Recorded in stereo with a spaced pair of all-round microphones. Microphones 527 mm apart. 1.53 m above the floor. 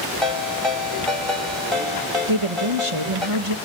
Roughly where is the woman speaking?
Right.